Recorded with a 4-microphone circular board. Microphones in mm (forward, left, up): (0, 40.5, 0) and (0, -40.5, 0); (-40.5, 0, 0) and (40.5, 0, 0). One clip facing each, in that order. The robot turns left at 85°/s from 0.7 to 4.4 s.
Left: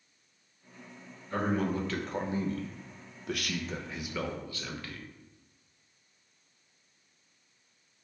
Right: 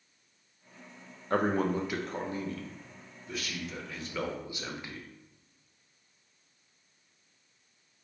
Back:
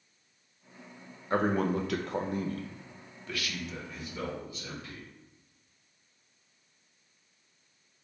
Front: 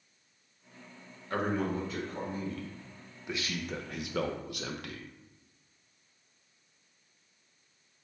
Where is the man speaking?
115° right, 0.5 m; by 5.1 s 20° right, 0.5 m.